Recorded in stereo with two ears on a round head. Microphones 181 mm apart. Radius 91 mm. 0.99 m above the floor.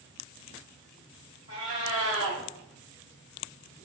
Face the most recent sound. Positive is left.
turn(degrees=-25)  # may be behind; listen again after turning